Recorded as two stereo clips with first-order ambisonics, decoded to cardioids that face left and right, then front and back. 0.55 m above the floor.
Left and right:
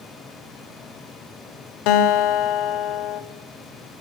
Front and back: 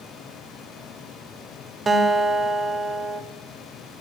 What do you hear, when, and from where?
1.9 s a guitar: 105° left, 0.9 m